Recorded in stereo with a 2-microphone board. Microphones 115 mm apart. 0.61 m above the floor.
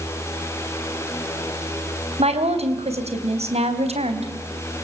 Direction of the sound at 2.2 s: 80° right.